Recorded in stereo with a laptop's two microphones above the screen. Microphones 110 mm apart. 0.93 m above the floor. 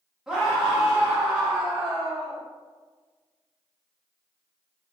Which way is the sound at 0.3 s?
5° right (ahead or behind).